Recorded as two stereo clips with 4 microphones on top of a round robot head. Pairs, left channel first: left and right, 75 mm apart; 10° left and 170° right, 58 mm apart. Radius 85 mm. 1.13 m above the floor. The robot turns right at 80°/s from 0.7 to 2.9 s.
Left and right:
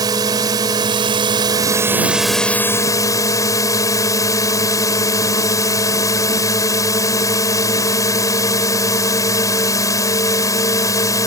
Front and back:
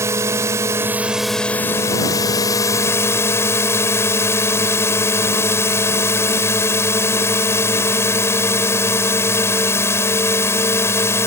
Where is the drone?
130° right; by 11.3 s 50° left.